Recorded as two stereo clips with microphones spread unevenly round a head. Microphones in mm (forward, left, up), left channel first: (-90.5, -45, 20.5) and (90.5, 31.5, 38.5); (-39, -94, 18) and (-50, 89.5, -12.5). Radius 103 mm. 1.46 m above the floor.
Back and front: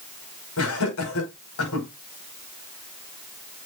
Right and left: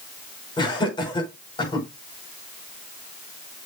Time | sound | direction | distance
0.6 | laughter | 155° right | 6 m